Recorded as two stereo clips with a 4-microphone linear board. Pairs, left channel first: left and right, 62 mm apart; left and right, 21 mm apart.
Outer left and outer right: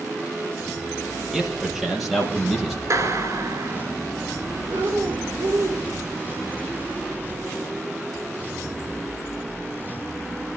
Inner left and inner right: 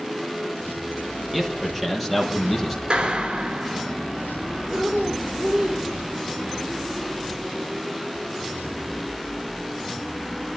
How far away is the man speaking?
About 4 m.